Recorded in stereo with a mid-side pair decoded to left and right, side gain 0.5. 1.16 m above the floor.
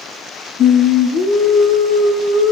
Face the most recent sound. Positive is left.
turn(degrees=65)